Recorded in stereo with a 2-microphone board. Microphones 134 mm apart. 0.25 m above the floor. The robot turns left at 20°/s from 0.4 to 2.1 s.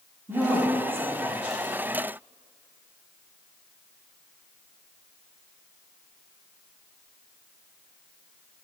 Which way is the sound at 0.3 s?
25° right (ahead or behind).